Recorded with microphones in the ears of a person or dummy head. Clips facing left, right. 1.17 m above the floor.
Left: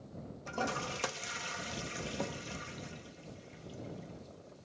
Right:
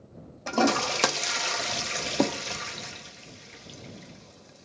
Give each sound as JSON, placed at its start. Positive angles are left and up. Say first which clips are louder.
{"t": 0.5, "sound": "a toilet flushing", "louder": "right 14 dB", "side_deg": -80}